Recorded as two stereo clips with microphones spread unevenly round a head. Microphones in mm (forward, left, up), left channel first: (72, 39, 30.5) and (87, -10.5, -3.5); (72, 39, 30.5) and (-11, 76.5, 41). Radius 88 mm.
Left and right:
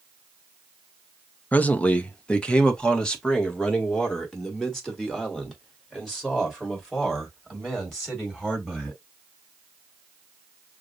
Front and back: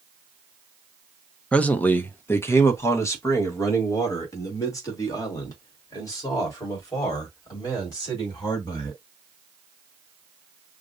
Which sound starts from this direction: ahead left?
A man speaking, at 1.5 s.